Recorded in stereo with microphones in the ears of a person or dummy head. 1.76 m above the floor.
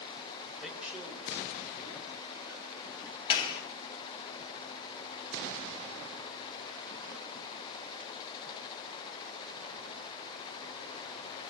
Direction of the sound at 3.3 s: 35° left (ahead or behind).